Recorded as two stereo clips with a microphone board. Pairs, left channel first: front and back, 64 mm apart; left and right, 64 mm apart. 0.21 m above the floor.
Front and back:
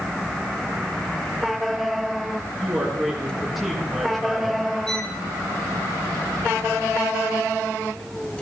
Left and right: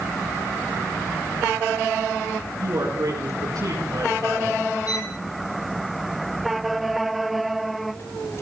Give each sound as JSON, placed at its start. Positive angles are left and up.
{"t": 2.6, "sound": "a woman speaking", "azimuth_deg": -95, "distance_m": 5.0}
{"t": 4.9, "sound": "a violin", "azimuth_deg": 80, "distance_m": 3.0}